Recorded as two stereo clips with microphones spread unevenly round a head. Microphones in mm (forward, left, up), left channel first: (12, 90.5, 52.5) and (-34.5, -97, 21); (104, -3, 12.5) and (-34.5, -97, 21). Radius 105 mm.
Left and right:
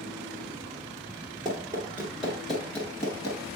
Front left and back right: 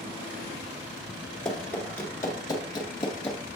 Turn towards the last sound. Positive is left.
turn(degrees=50)